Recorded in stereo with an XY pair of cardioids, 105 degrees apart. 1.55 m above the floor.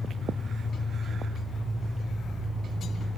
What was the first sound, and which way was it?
An engine running, 20° left.